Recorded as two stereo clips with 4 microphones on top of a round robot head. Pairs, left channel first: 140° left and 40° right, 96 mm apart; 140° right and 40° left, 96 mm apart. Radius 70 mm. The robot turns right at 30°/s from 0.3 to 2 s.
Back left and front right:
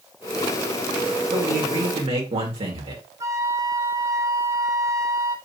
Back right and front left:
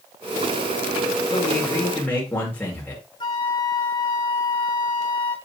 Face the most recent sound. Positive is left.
turn(degrees=-95)